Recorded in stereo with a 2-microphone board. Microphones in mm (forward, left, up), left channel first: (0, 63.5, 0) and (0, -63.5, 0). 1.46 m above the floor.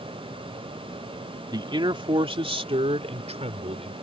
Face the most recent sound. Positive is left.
turn(degrees=-60)  # may be behind; listen again after turning